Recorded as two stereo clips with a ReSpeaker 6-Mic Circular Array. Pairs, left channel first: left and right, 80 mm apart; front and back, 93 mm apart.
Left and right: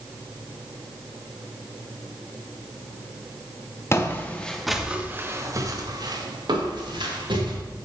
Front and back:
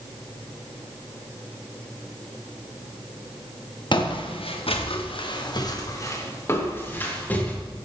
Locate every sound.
3.9 s footsteps: 30° left, 2 m; by 7.5 s 75° right, 4.5 m